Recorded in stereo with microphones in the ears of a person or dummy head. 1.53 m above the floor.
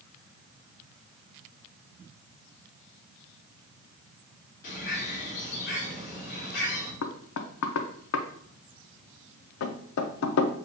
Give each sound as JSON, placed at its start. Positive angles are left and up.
{"t": 4.6, "sound": "a bird", "side_deg": 50, "distance_m": 2.5}
{"t": 7.0, "sound": "knocking", "side_deg": 80, "distance_m": 0.5}